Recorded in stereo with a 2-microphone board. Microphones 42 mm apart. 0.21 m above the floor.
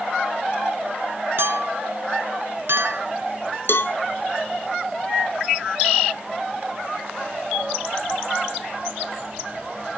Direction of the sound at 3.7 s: 70° left (ahead or behind).